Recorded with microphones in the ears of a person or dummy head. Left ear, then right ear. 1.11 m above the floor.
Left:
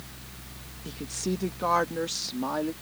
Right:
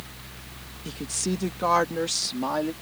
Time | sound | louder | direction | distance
0.8 | a woman speaking | right 2 dB | 10° right (ahead or behind) | ?